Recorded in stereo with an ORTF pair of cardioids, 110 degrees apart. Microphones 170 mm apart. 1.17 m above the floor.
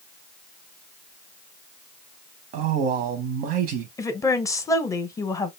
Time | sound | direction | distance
2.5 | a man speaking | 65° right | 0.7 m
4.0 | a woman speaking | 20° left | 0.7 m